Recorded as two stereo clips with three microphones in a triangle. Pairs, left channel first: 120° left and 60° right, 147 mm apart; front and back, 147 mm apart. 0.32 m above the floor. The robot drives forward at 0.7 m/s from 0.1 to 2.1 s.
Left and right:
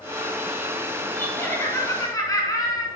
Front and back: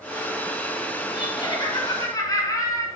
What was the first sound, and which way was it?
Laughter, 45° left.